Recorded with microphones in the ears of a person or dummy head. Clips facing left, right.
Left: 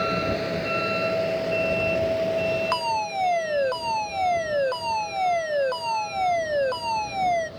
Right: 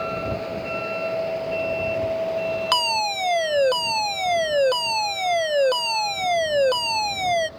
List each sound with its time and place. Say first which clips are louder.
0.0 s a vehicle: left 2 dB; 20° left (ahead or behind); by 7.6 s 15° left (ahead or behind)
2.7 s a fire alarm: right 1 dB; 45° right (ahead or behind)